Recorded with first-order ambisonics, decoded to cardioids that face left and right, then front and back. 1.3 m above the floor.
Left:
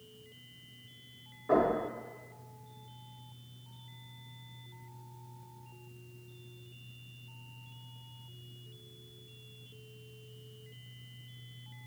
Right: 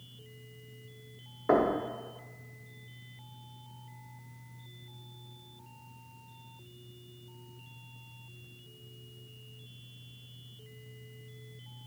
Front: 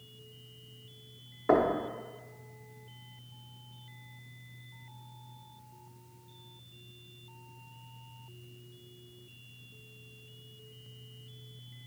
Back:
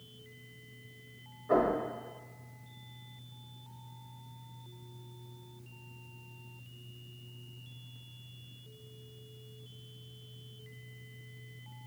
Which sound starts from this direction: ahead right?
Knocking, at 1.5 s.